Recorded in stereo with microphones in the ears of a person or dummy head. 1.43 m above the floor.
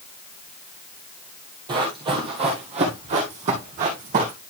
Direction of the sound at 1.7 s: 20° right (ahead or behind).